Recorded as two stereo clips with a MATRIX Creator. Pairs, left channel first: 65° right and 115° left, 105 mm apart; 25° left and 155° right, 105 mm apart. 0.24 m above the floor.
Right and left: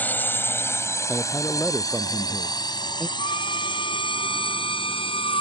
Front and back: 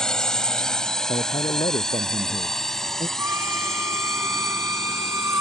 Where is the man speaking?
20° left.